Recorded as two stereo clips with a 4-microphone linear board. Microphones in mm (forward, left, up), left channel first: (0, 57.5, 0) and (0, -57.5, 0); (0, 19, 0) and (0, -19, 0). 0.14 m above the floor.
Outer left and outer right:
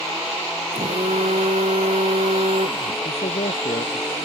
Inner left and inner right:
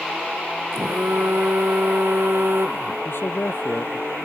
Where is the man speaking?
75° left (ahead or behind).